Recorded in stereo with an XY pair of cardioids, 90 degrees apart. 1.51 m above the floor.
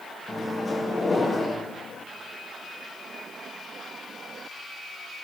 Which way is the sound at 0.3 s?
35° left.